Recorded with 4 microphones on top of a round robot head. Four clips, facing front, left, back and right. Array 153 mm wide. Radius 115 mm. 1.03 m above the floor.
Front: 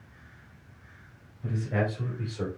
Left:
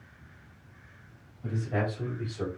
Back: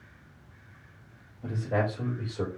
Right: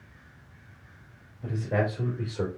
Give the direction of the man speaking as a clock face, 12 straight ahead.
4 o'clock.